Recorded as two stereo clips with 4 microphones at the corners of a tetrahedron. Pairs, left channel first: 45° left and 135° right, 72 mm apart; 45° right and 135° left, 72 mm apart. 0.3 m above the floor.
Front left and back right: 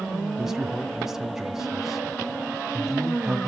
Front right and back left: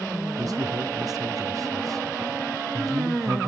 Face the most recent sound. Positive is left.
turn(degrees=145)